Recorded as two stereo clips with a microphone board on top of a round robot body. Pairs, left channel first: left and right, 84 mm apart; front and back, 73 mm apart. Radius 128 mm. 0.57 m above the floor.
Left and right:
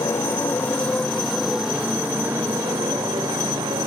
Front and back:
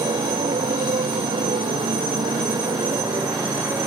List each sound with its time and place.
0.0 s a motorcycle: 150° left; by 3.9 s 130° right